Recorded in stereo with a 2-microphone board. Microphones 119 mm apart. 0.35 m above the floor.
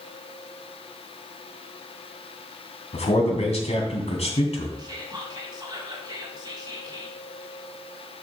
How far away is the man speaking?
About 2.5 m.